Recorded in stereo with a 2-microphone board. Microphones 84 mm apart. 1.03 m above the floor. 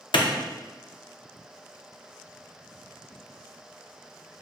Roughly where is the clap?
Left.